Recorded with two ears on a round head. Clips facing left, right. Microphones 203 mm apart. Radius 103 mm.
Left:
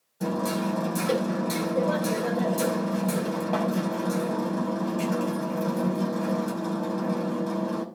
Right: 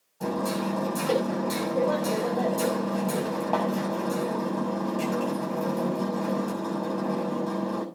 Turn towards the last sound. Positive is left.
turn(degrees=25)  # may be behind; listen again after turning